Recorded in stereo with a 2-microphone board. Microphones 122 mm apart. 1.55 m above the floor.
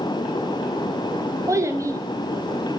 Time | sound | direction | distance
1.5 | a child speaking | 25° right (ahead or behind) | 0.6 m